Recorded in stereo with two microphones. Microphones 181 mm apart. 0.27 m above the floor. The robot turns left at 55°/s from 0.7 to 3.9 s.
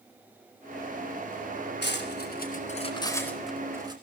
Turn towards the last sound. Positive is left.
turn(degrees=-20)  # may be behind; listen again after turning